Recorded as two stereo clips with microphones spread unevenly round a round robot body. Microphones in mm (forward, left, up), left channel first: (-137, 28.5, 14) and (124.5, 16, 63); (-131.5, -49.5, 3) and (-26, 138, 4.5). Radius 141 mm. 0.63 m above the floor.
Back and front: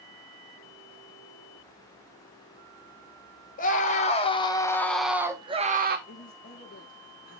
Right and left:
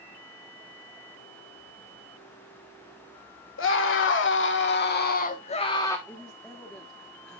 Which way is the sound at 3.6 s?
130° right.